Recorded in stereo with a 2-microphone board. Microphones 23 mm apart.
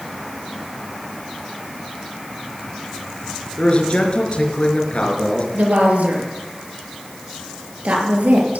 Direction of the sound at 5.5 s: 80° right.